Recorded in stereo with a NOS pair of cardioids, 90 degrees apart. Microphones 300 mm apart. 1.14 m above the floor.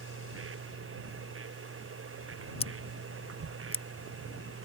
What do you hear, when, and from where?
0.0 s a machine running: 40° right
2.6 s scissors: 20° left